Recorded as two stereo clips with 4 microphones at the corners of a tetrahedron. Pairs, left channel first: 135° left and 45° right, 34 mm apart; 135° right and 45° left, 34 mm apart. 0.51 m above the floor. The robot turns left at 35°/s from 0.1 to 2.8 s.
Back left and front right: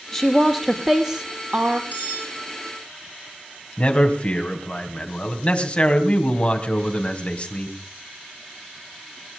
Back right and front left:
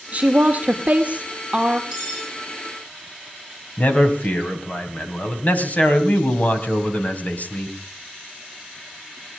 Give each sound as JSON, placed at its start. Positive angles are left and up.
{"t": 0.1, "sound": "a woman speaking", "azimuth_deg": 55, "distance_m": 1.4}
{"t": 1.9, "sound": "cutlery clinking", "azimuth_deg": -35, "distance_m": 7.5}
{"t": 3.8, "sound": "a man speaking", "azimuth_deg": -175, "distance_m": 3.0}